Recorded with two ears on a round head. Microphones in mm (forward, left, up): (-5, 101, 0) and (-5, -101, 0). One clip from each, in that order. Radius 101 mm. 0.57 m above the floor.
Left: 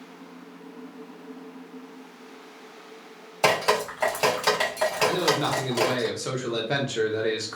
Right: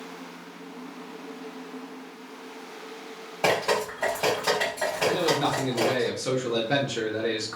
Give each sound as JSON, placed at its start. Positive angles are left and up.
{"t": 3.4, "sound": "dripping", "side_deg": 55, "distance_m": 1.8}
{"t": 5.1, "sound": "a man speaking", "side_deg": 15, "distance_m": 1.0}